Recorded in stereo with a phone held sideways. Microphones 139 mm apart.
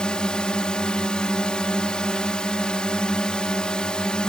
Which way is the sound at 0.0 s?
5° left (ahead or behind).